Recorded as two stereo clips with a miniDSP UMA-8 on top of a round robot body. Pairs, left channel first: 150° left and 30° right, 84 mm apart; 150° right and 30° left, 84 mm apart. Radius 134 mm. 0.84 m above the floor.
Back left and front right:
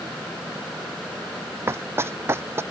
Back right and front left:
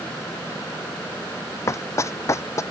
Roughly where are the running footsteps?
Right.